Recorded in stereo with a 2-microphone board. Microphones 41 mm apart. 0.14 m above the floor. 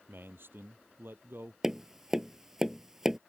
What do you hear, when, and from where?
0.1 s a man speaking: 60° right (ahead or behind)
1.6 s tapping: 10° right (ahead or behind)